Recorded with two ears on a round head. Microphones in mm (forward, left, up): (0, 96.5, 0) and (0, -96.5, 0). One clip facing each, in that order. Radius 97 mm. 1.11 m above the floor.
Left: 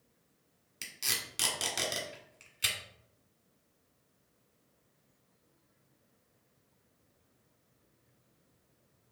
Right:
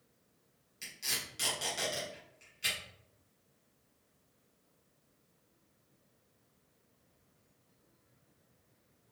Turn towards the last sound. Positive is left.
turn(degrees=75)  # may be behind; listen again after turning